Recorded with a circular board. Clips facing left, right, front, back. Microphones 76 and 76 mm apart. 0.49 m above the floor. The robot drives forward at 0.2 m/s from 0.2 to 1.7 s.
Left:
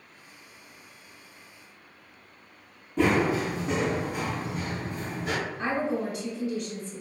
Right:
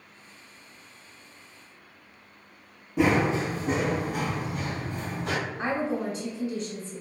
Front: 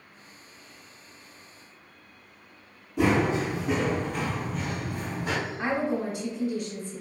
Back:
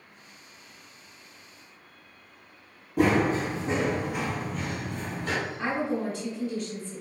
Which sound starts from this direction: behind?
Running footsteps, at 3.0 s.